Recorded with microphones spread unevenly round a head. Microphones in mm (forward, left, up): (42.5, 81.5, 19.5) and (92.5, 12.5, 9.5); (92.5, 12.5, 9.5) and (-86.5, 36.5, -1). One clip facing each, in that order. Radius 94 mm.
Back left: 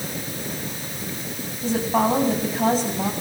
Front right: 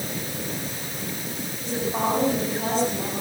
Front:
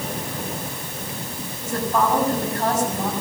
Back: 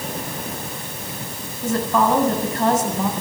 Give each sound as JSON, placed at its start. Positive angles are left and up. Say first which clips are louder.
{"t": 1.6, "sound": "a woman speaking", "louder": "back left 5 dB, back 3 dB", "azimuth_deg": 150, "distance_m": 7.5}